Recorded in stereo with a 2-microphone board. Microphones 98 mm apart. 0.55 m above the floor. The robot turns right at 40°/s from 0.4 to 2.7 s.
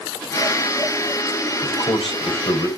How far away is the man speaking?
About 3 m.